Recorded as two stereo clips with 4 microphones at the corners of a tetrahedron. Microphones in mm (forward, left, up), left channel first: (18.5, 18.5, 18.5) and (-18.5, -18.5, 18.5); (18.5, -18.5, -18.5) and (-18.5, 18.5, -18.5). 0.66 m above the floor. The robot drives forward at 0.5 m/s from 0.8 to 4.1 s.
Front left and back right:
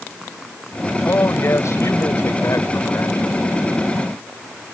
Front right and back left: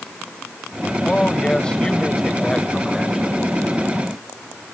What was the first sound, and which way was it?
A man speaking, 25° left.